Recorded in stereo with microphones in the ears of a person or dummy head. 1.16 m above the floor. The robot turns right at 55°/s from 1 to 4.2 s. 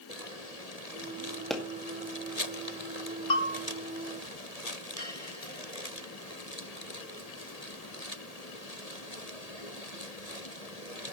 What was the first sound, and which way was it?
A pop, centre (ahead or behind).